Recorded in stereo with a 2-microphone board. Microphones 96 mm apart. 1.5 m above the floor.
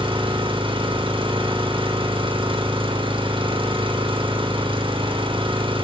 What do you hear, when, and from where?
0.0 s an engine running: 65° right (ahead or behind), 3 m